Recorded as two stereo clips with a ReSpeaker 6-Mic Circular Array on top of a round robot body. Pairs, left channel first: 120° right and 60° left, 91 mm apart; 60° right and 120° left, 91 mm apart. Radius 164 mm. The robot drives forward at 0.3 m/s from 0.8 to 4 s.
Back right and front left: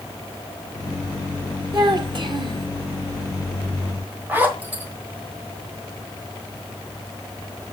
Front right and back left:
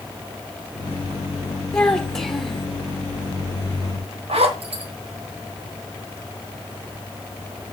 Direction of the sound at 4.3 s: 130° left.